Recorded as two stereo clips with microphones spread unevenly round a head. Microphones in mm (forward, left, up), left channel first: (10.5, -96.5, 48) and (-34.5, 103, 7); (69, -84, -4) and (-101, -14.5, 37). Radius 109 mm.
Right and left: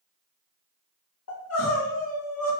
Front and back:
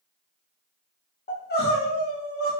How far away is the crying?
About 1.0 m.